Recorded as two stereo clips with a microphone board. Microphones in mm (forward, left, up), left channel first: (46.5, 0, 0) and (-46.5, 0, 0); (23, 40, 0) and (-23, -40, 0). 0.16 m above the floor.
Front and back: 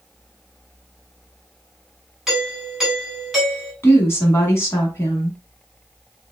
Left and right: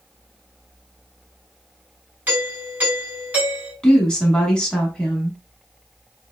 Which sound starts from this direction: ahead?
A woman speaking, at 3.8 s.